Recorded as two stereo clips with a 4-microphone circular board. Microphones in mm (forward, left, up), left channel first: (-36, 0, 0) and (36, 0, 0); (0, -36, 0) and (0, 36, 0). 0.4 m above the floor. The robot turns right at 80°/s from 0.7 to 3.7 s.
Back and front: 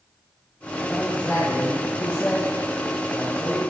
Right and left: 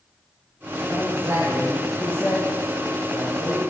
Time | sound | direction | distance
0.9 | a man speaking | 105° left | 5 m